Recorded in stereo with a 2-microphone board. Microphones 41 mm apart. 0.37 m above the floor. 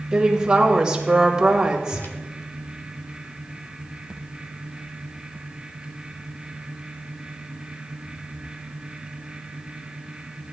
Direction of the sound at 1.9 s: 55° left (ahead or behind).